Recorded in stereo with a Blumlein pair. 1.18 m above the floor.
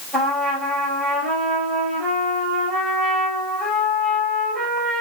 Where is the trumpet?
10° right, 3.5 m.